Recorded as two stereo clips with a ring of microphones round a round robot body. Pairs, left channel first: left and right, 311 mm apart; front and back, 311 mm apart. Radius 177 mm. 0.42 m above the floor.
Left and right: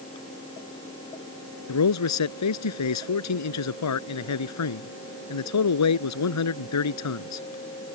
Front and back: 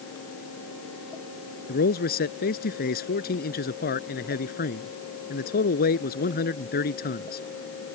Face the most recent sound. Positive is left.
turn(degrees=65)